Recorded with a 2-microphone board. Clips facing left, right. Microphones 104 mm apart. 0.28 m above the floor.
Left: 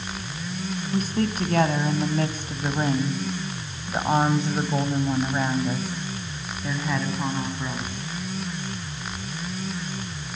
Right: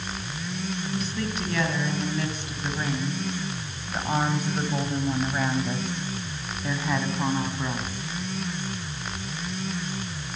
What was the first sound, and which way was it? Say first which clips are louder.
A woman speaking: left 9 dB; 55° left (ahead or behind).